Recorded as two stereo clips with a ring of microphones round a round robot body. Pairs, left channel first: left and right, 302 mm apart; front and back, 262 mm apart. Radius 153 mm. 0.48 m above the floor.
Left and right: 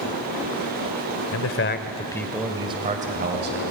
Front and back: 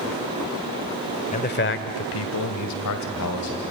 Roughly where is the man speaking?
Ahead left.